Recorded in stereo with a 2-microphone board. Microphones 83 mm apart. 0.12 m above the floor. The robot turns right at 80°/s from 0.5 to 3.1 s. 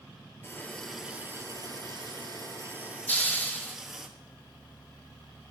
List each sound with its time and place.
0.4 s a running tap: 150° left, 1.5 m; by 4.1 s 5° right, 1.5 m
3.1 s a hiss: 20° left (ahead or behind), 1.3 m